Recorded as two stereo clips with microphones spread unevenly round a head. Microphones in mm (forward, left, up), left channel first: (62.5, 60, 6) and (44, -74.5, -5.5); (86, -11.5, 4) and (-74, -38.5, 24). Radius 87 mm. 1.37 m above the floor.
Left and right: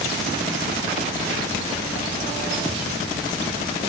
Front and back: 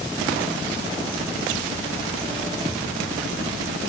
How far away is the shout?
I don't hear a shout.